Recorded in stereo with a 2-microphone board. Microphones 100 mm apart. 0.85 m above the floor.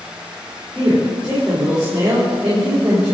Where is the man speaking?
15° right (ahead or behind), 3.5 m.